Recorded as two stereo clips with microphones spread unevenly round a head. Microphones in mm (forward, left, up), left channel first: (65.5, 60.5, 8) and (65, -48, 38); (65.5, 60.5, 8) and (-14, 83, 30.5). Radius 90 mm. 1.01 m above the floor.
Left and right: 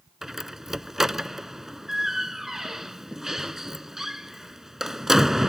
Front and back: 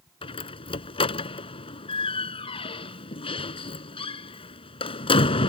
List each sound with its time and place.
0.2 s a door slam: 5° right